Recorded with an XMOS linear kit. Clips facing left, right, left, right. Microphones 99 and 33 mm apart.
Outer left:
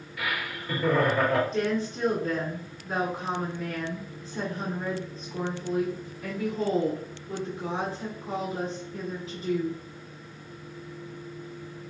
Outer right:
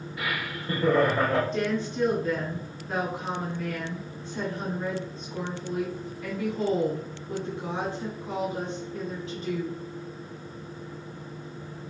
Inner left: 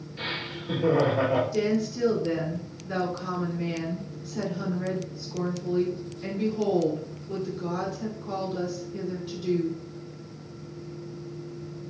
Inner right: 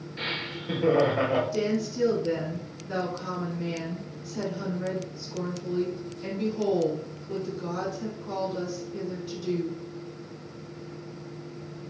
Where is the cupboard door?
I don't hear a cupboard door.